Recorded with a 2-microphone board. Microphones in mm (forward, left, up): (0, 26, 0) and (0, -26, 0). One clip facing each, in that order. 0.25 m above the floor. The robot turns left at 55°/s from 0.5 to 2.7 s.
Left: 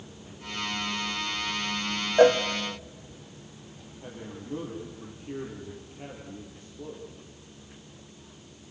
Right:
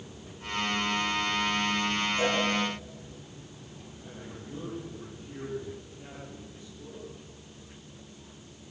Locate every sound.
2.2 s a cowbell: 65° left (ahead or behind), 2.5 m; by 2.4 s 75° left (ahead or behind), 2.5 m
4.0 s a man speaking: 45° left (ahead or behind), 7.5 m